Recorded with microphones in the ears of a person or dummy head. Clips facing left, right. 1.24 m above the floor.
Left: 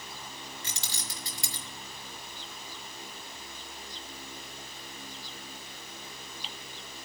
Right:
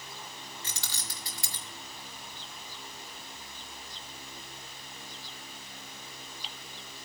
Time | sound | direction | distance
0.6 | keys jangling | 20° left (ahead or behind) | 1.3 m